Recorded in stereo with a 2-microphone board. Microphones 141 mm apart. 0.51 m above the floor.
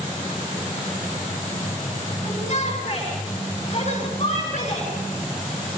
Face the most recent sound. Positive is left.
turn(degrees=50)  # may be behind; listen again after turning